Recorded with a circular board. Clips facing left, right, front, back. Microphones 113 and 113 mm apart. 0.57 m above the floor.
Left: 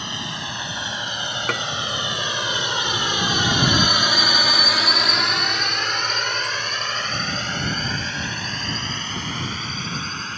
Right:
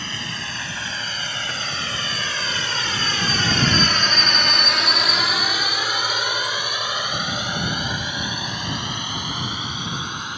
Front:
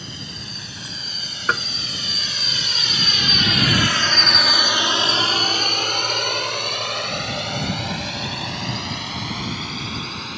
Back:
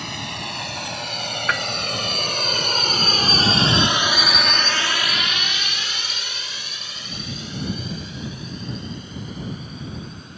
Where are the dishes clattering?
60° left.